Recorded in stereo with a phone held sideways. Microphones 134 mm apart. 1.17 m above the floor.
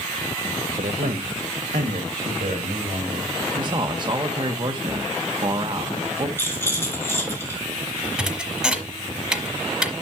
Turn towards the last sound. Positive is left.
turn(degrees=-5)  # may be behind; listen again after turning